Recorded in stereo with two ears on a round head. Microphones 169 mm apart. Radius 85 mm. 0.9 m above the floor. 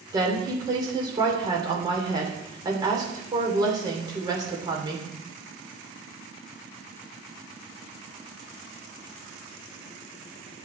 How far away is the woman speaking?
About 3 m.